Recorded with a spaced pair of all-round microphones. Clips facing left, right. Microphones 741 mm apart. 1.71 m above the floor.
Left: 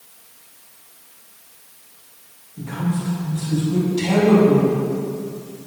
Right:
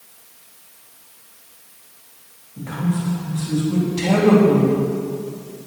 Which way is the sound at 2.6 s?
80° right.